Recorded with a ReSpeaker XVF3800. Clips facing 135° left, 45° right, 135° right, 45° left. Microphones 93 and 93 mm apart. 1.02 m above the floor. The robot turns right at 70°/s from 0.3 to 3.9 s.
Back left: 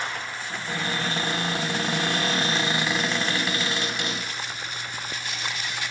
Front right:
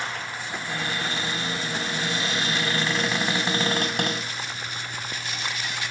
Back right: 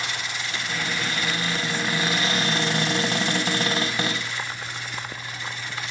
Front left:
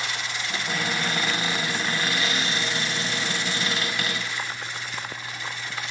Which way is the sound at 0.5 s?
45° left.